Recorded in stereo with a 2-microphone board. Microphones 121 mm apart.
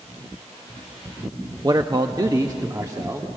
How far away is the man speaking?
About 0.6 m.